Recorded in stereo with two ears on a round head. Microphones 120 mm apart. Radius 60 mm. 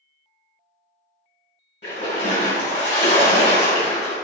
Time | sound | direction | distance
1.8 | a splash | 55° left (ahead or behind) | 1.8 m